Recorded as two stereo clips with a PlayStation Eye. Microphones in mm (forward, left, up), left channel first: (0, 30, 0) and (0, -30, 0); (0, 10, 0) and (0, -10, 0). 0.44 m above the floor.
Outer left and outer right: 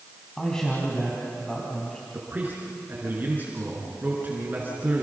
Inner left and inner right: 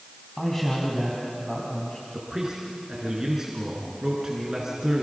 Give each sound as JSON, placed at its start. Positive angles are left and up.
{"t": 0.4, "sound": "a man speaking", "side_deg": 10, "distance_m": 4.0}
{"t": 2.1, "sound": "a man speaking", "side_deg": -30, "distance_m": 5.5}